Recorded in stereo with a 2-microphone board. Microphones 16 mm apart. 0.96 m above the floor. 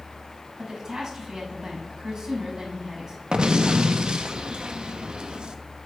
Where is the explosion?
75° right (ahead or behind), 0.9 m.